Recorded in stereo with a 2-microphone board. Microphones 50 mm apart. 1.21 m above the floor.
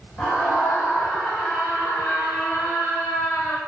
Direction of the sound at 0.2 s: 15° left (ahead or behind).